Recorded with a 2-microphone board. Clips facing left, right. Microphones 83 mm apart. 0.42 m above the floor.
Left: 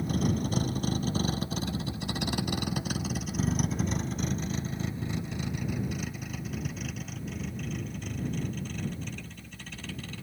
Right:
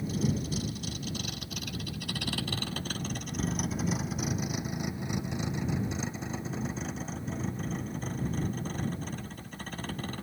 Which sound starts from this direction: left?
A vehicle, at 0.0 s.